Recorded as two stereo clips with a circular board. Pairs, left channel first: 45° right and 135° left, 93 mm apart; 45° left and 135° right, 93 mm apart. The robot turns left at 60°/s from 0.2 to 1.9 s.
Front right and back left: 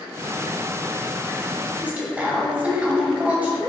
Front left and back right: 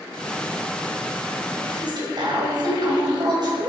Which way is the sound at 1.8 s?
150° right.